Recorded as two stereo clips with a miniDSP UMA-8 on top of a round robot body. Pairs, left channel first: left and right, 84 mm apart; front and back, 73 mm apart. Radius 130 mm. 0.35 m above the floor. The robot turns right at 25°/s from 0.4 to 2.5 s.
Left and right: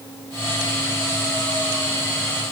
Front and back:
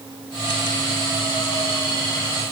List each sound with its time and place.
Only background noise.